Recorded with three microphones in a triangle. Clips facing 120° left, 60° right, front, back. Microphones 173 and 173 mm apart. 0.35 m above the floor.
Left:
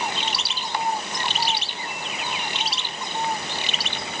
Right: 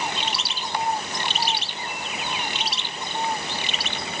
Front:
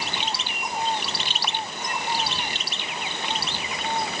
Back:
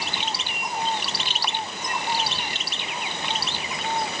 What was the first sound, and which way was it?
Only background noise.